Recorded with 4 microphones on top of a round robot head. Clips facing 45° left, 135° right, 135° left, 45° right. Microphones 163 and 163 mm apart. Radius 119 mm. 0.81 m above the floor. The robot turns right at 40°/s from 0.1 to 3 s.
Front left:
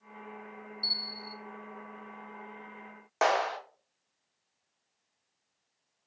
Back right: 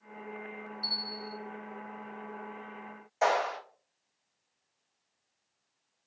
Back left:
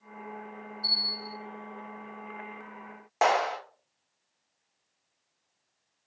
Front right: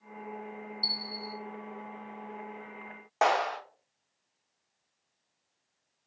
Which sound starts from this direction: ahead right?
A bell, at 0.8 s.